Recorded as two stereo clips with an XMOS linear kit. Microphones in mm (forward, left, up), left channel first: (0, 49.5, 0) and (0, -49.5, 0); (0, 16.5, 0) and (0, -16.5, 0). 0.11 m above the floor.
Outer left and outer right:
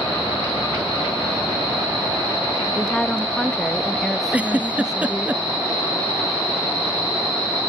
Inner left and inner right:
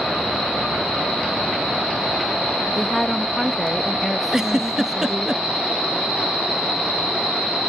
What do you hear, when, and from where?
2.8 s a woman speaking: 5° left (ahead or behind); by 5.3 s 5° right (ahead or behind)
4.3 s a giggle: 15° right (ahead or behind)